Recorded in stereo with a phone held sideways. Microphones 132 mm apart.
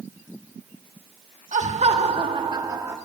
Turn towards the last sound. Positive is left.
turn(degrees=-20)  # may be behind; listen again after turning